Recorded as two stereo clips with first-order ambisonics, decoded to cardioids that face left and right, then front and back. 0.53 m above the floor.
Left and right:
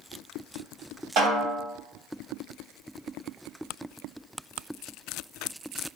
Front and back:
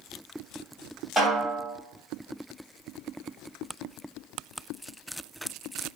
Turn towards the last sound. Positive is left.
turn(degrees=-90)